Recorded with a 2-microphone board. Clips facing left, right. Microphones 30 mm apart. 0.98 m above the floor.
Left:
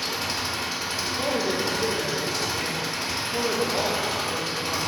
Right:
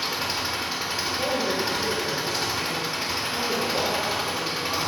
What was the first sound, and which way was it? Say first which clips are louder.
An engine running: right 1 dB; 20° right (ahead or behind).